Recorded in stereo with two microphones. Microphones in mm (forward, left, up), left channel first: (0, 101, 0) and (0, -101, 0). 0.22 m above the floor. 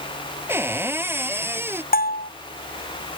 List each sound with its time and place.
0.5 s a cupboard door: 10° right (ahead or behind)
1.9 s a bell: 45° left (ahead or behind)